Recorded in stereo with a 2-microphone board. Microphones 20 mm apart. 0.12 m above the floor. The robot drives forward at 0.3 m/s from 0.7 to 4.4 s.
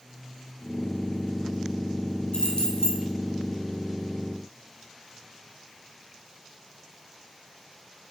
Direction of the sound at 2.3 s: 45° left (ahead or behind).